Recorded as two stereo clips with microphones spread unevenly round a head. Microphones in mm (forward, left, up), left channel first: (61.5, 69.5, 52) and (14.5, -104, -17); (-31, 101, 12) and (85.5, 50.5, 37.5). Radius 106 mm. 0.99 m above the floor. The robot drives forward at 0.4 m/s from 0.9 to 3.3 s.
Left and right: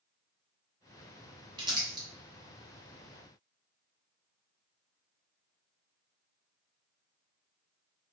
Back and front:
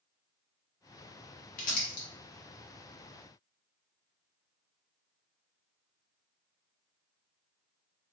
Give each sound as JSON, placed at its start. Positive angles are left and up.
{"t": 1.6, "sound": "crumpling", "azimuth_deg": -175, "distance_m": 0.8}